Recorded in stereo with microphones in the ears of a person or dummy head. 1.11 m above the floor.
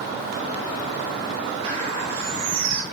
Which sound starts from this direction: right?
A bird, at 1.6 s.